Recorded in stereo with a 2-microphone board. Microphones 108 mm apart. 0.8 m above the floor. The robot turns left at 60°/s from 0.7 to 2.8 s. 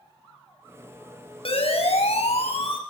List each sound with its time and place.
1.4 s a siren: 60° left (ahead or behind), 5 m